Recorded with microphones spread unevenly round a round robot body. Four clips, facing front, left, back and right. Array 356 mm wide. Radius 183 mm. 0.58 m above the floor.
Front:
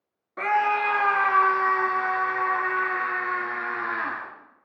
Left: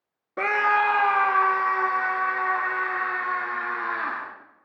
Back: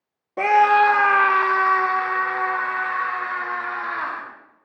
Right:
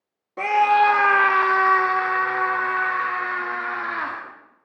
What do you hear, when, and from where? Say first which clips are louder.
0.4 s a scream: right 5 dB, back 8 dB; 165° left, 0.7 m; by 4.2 s 95° right, 3.5 m